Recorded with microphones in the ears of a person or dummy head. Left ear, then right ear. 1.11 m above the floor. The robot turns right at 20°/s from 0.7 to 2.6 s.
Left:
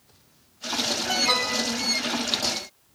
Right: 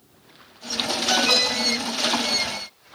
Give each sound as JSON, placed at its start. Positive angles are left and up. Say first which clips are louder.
{"t": 1.1, "sound": "an alarm", "louder": "right 5 dB", "side_deg": 25, "distance_m": 8.0}